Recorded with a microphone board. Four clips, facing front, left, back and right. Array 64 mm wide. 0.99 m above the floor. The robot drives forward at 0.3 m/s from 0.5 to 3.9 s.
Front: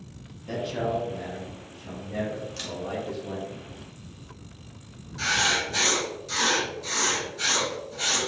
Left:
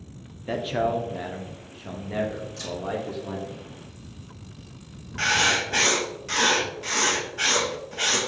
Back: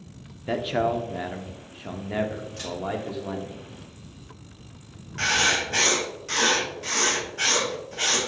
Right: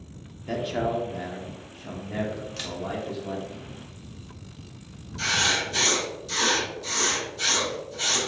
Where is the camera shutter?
70° right, 0.9 m; by 2.8 s 75° right, 0.9 m.